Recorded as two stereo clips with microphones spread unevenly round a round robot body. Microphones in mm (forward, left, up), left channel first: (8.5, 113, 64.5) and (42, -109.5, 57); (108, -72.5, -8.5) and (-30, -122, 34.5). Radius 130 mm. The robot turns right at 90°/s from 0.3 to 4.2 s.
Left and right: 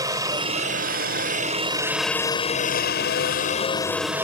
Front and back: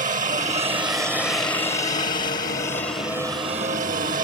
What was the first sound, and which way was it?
A helicopter, 150° right.